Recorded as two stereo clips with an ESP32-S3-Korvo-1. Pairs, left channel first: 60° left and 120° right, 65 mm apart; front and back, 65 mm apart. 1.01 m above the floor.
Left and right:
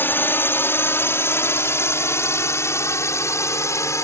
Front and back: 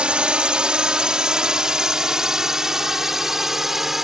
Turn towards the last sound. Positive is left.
turn(degrees=95)